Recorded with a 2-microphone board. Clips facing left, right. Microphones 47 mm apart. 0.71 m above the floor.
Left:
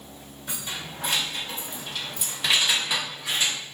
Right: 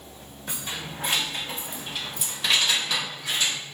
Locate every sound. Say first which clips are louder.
0.5 s keys jangling: right 1 dB; 30° right (ahead or behind), 1.0 m; by 3.6 s 25° left (ahead or behind), 0.9 m